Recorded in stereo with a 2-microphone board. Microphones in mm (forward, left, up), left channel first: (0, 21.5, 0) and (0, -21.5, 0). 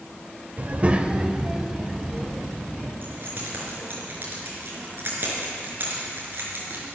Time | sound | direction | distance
0.6 | a child speaking | 45° right (ahead or behind) | 1.0 m
3.0 | keys jangling | 50° right (ahead or behind) | 5 m